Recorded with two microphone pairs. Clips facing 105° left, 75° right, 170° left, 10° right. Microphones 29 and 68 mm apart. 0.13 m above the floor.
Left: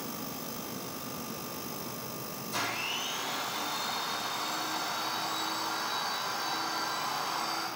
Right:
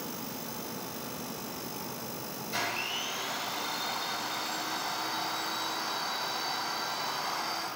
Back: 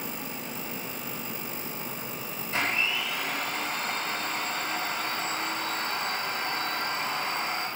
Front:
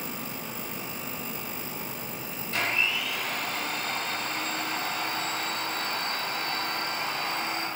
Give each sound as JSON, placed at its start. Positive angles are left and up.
{"t": 2.5, "sound": "a blender", "azimuth_deg": -135, "distance_m": 1.8}